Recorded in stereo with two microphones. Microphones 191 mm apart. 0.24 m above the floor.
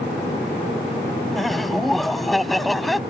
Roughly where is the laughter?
Centre.